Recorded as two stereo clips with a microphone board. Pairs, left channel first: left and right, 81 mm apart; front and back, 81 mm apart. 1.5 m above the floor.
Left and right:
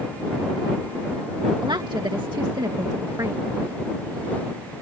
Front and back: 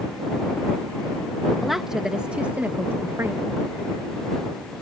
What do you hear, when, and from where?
1.6 s a woman speaking: 90° right; by 3.4 s 130° right